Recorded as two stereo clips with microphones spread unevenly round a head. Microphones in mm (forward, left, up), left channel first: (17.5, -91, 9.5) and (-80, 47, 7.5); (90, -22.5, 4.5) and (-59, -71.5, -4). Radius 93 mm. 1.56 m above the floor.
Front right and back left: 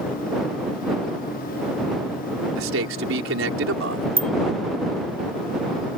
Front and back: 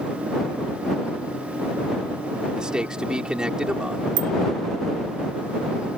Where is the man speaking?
110° left.